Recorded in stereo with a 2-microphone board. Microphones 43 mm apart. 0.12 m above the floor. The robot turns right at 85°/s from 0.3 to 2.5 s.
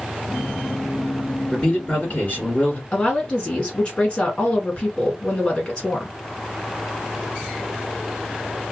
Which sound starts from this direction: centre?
A man speaking, at 1.5 s.